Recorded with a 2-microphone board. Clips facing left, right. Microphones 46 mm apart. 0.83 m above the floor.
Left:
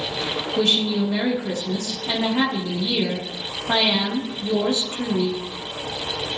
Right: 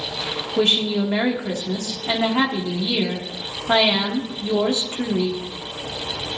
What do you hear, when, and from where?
0.6 s a woman speaking: 30° right (ahead or behind), 0.9 m